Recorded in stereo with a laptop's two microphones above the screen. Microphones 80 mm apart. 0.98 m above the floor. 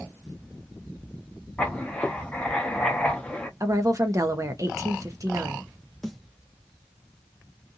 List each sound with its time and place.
1.6 s writing: 15° left (ahead or behind), 0.6 m
3.6 s a woman speaking: 45° right (ahead or behind), 0.8 m
6.0 s a snare drum: 5° left (ahead or behind), 0.9 m